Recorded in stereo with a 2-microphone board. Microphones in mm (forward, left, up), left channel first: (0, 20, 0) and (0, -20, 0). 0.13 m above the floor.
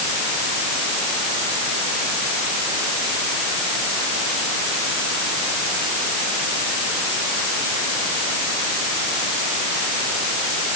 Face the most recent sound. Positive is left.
No sound to turn to.